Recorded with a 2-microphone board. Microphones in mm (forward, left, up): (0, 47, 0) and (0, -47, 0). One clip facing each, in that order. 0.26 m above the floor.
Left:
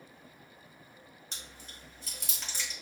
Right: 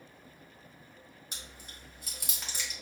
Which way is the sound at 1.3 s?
5° right (ahead or behind).